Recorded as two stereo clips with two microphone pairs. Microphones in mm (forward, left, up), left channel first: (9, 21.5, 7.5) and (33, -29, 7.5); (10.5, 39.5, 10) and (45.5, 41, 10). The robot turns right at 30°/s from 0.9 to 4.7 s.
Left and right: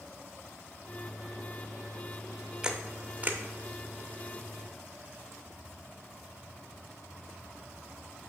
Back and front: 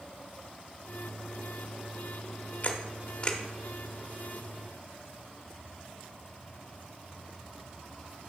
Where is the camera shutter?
135° right, 0.5 m; by 3.4 s 115° right, 0.5 m.